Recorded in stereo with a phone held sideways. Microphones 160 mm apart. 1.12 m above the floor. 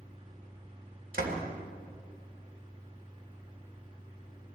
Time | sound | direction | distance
0.0 | a fan | 30° right (ahead or behind) | 2 m
1.1 | a door slam | 70° right (ahead or behind) | 3 m